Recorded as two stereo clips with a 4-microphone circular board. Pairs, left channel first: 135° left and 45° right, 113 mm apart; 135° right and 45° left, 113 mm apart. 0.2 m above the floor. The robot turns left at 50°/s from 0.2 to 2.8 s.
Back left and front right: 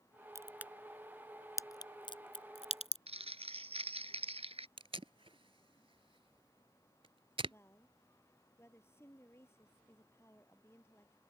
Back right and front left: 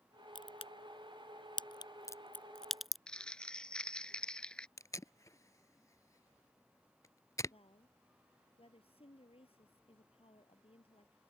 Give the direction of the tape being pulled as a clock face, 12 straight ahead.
3 o'clock.